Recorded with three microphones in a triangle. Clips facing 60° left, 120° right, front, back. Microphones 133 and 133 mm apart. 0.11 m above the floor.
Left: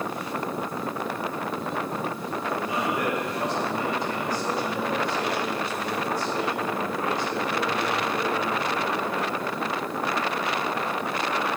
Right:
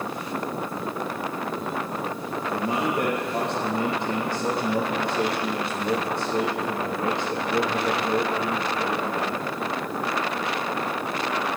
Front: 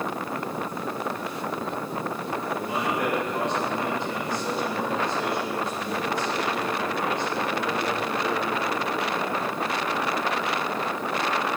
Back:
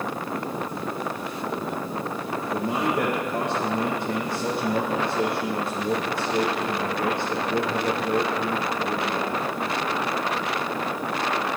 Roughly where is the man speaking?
Behind.